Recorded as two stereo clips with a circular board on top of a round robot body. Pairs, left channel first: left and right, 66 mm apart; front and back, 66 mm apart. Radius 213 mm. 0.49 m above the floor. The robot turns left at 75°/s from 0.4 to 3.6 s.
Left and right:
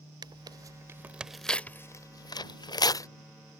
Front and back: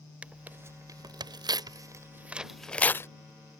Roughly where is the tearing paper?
Right.